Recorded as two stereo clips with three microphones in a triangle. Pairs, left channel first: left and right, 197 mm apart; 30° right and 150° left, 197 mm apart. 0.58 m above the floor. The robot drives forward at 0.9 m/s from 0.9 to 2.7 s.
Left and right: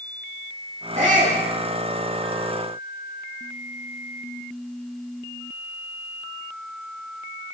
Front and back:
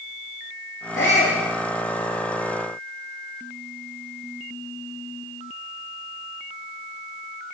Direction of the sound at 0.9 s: 35° right.